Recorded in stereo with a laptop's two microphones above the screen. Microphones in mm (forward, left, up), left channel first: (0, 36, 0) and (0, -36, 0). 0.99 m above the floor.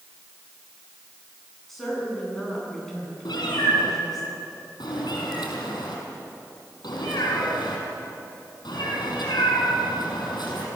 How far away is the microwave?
I don't hear a microwave.